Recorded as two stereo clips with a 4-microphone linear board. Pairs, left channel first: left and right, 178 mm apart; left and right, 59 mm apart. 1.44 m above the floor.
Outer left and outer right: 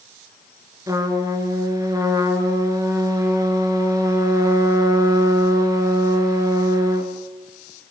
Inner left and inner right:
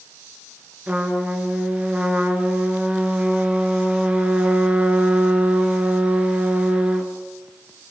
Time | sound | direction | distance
0.9 | a trumpet | 20° right (ahead or behind) | 4 m